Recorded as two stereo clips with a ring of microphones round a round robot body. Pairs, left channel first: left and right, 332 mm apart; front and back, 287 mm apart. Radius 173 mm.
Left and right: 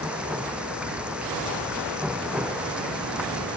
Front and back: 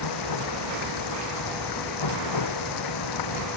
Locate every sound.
0.0 s running water: 5° right